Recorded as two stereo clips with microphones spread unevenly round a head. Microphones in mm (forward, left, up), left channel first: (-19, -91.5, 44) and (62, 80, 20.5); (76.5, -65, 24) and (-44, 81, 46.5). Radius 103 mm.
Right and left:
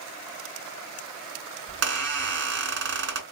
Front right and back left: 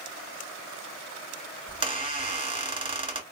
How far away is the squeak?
About 1.3 m.